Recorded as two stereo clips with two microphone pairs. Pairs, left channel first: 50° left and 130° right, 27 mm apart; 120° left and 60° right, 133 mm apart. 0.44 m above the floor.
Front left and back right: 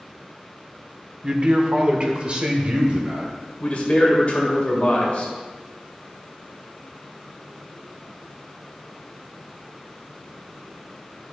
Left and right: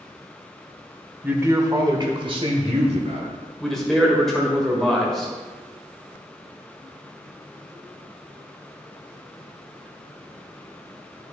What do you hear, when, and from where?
1.2 s a man speaking: 125° right, 0.9 m; by 3.4 s 85° right, 1.8 m
3.6 s a man speaking: 40° left, 1.7 m